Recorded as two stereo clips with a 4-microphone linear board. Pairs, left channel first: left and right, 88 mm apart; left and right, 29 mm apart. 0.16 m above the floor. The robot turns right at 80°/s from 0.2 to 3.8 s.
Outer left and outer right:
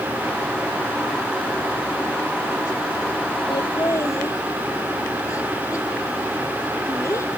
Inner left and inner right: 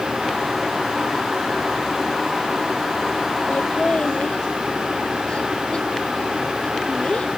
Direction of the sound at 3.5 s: 60° left (ahead or behind).